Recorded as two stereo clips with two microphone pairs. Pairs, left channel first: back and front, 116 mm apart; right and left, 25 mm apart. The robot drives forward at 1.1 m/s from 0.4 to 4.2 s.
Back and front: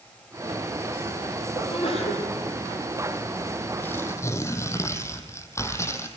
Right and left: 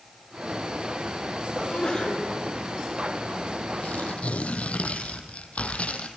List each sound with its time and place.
1.6 s a sneeze: 150° right, 9.5 m
3.8 s tearing paper: 110° right, 3 m; by 6.1 s 115° right, 3.5 m